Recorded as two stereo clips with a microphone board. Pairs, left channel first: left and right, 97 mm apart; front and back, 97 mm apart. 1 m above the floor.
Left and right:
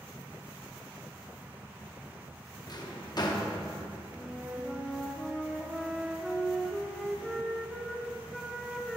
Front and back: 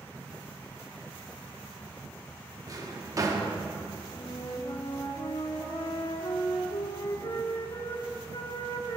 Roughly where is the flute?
Ahead.